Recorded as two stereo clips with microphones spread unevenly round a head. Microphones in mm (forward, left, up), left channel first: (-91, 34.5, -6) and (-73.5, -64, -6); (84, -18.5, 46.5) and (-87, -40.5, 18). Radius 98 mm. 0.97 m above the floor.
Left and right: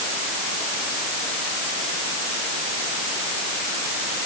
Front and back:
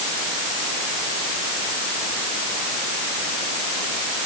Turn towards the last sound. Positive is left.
No sound to turn to.